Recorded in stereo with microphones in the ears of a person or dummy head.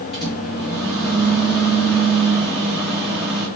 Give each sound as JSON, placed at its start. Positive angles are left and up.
{"t": 0.1, "sound": "a microwave", "side_deg": 0, "distance_m": 1.2}